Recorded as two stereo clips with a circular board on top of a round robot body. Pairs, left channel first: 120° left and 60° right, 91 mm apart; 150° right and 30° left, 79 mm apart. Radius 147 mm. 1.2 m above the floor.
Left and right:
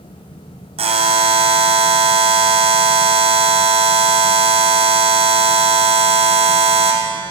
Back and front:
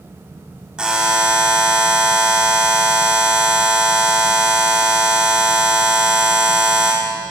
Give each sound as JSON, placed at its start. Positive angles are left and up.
{"t": 0.8, "sound": "a buzzer", "azimuth_deg": -50, "distance_m": 2.5}